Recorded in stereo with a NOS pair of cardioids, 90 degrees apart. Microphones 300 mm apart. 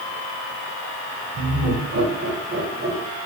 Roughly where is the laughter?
Ahead right.